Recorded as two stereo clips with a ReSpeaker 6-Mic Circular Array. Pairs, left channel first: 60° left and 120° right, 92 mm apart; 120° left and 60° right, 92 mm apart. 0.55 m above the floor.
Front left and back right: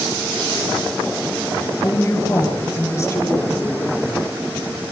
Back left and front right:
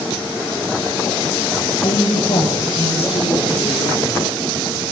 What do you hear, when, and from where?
1.8 s a woman speaking: 120° left, 9 m; by 4.2 s 130° left, 9 m